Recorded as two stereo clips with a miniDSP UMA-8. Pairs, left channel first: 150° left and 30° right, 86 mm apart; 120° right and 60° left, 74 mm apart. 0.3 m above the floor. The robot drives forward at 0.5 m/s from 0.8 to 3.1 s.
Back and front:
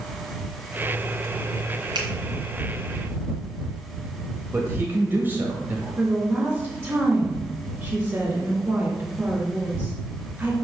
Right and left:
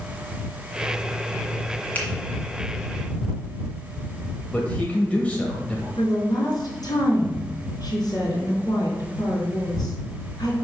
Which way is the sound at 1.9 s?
55° right.